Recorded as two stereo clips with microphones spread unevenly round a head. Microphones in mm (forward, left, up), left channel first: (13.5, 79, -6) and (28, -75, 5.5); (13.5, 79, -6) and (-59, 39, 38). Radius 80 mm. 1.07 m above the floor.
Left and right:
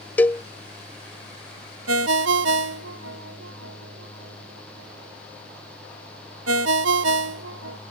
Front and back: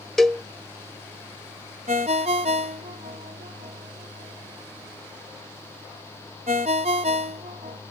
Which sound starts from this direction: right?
A ringtone, at 1.9 s.